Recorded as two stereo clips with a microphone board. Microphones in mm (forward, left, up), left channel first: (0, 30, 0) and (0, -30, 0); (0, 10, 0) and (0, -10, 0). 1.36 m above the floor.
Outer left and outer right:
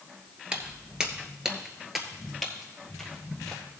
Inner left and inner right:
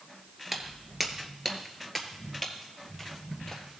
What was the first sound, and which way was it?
Footsteps, 15° right (ahead or behind).